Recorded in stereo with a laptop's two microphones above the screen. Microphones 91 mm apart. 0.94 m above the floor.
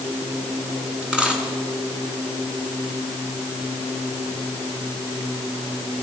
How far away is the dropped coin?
About 5.5 m.